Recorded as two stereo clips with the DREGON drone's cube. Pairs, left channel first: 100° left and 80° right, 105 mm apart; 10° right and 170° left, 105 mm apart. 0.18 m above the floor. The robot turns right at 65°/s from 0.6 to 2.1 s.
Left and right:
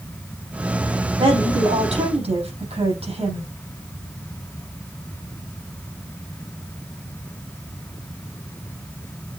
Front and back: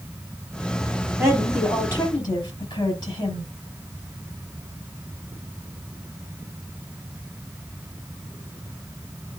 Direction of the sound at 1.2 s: 125° right.